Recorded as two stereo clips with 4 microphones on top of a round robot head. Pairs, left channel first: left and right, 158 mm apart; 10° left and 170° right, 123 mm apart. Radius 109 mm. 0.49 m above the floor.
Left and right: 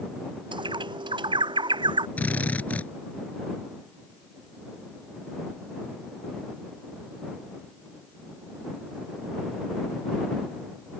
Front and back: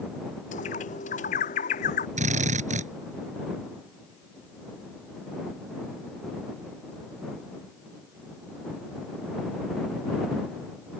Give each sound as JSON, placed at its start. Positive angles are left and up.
{"t": 0.5, "sound": "a bird", "azimuth_deg": -30}
{"t": 2.2, "sound": "a drill", "azimuth_deg": 170}